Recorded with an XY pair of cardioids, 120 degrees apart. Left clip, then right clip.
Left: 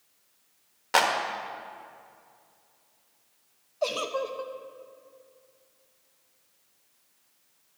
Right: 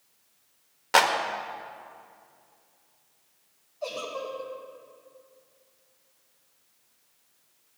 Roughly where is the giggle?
Ahead left.